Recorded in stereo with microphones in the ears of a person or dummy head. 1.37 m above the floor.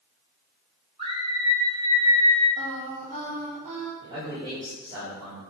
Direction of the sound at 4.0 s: 15° right (ahead or behind).